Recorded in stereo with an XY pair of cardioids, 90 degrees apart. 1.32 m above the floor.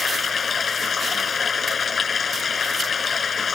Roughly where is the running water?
Ahead left.